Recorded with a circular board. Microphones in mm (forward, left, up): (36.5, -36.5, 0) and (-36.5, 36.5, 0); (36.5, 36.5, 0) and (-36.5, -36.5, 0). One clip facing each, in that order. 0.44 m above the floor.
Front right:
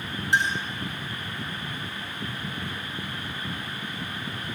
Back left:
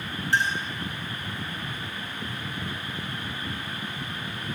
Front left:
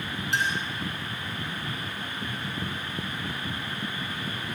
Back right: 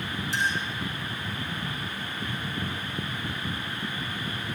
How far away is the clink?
About 4 m.